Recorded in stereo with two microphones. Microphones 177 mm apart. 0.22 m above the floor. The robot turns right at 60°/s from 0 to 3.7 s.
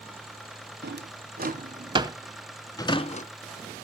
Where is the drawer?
75° right (ahead or behind), 0.7 m; by 3.3 s 50° left (ahead or behind), 0.7 m.